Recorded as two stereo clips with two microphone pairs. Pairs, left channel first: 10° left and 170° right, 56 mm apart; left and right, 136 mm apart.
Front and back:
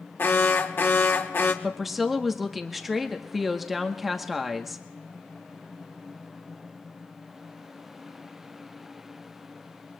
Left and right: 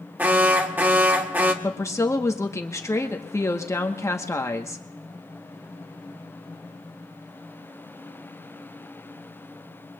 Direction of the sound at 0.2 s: 20° right.